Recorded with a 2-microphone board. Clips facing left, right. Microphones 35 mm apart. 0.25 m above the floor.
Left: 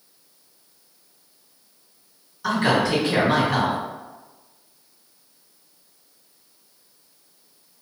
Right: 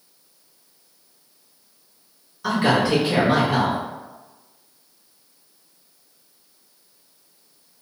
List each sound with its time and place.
2.4 s a man speaking: 10° right (ahead or behind), 1.9 m